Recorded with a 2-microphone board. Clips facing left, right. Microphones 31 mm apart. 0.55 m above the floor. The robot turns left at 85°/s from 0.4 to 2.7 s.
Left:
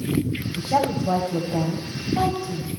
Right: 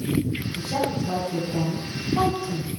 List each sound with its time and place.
0.6 s a woman speaking: 35° left (ahead or behind), 2.5 m; by 2.7 s 35° right (ahead or behind), 2.5 m